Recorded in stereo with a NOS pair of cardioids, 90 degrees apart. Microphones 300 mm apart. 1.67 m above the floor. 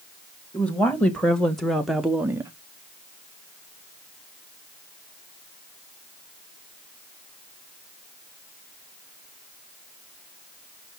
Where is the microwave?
No microwave in this recording.